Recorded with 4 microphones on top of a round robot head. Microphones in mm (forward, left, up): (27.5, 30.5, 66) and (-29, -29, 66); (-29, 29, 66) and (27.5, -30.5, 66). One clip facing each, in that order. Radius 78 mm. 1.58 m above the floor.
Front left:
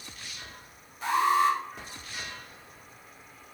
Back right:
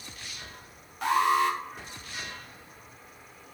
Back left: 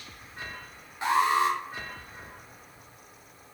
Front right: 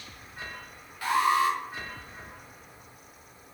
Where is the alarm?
160° right, 2.0 m.